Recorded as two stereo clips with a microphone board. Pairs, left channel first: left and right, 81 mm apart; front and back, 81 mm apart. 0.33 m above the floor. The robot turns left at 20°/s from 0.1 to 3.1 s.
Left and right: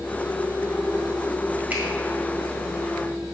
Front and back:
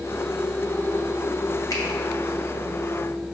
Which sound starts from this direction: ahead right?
A finger snap, at 1.7 s.